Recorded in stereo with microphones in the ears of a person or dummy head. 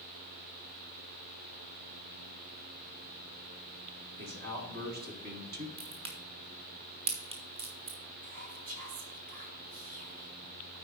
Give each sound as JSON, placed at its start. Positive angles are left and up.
{"t": 4.2, "sound": "a man speaking", "side_deg": -50, "distance_m": 1.5}
{"t": 5.8, "sound": "a crack", "side_deg": -25, "distance_m": 1.1}
{"t": 8.2, "sound": "whispering", "side_deg": -40, "distance_m": 1.2}